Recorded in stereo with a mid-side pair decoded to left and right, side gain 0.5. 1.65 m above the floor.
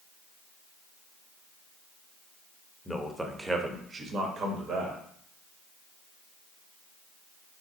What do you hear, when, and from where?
2.9 s a man speaking: 5° left, 0.7 m; by 5.0 s 70° right, 1.0 m